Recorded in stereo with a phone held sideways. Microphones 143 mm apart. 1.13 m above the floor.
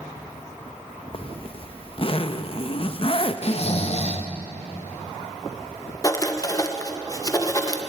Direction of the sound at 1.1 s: 45° left (ahead or behind).